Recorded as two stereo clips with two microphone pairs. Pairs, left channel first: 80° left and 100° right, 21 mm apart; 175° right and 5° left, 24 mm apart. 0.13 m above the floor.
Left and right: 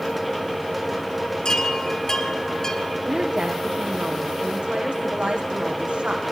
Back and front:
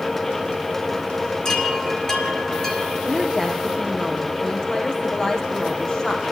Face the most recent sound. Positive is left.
turn(degrees=-115)